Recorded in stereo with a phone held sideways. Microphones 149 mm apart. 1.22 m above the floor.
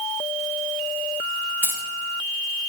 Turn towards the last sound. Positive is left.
turn(degrees=-15)  # may be behind; listen again after turning